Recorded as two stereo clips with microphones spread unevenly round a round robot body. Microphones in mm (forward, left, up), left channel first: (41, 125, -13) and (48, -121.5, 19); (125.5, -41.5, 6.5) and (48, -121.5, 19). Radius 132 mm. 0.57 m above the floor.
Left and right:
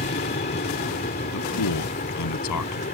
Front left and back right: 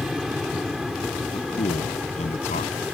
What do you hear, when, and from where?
0.0 s an aircraft: 135° left; by 2.9 s 140° left
1.3 s a man speaking: 95° left